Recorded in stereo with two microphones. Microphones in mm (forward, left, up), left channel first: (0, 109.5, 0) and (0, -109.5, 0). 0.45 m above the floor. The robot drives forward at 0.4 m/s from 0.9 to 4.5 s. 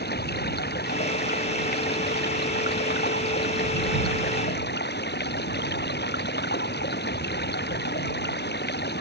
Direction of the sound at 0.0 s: 50° left (ahead or behind).